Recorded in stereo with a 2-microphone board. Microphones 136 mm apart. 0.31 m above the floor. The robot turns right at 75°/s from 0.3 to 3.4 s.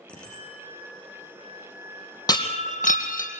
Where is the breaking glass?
30° left, 2.5 m; by 3.3 s 105° left, 2.5 m.